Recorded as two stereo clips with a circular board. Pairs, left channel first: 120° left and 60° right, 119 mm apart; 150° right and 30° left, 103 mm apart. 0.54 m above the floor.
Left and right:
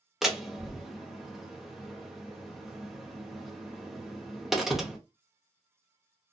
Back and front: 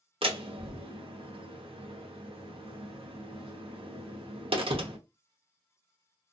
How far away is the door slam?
About 0.8 m.